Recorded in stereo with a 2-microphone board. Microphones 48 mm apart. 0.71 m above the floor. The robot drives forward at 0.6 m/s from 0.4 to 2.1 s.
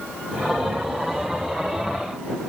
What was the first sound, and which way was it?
Only background noise.